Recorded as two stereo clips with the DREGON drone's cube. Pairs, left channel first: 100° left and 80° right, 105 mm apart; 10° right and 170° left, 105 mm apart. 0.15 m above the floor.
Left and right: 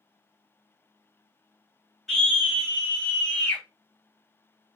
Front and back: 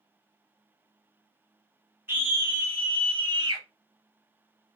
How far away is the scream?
About 1.1 m.